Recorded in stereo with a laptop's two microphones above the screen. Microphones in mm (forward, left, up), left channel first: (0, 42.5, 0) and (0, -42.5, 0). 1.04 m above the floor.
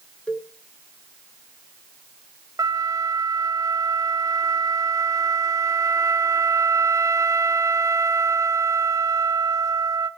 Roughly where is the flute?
Right.